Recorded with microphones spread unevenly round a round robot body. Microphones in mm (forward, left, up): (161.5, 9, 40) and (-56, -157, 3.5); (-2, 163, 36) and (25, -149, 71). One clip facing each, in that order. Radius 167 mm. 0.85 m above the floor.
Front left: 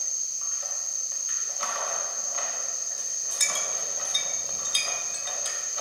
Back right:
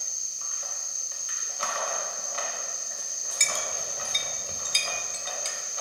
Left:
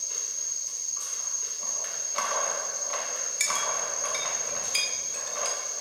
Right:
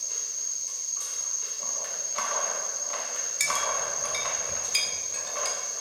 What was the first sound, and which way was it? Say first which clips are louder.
An insect: even, left 1 dB; 50° right.